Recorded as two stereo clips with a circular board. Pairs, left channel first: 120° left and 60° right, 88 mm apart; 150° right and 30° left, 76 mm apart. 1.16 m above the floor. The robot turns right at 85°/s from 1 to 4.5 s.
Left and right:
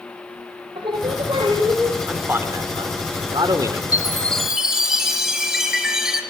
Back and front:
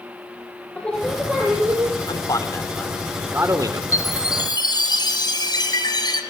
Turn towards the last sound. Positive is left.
turn(degrees=-145)